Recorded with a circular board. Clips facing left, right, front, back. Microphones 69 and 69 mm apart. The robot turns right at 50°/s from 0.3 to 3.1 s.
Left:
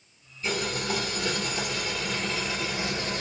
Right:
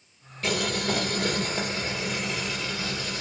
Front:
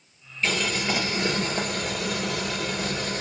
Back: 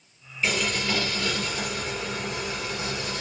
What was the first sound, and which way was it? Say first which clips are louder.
Boiling: right 2 dB, even; 95° right.